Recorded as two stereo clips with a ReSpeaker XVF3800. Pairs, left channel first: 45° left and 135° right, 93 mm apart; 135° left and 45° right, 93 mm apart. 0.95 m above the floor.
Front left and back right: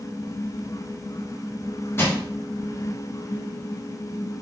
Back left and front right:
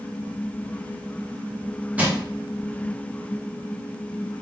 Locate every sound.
2.0 s crushing: 10° left, 0.8 m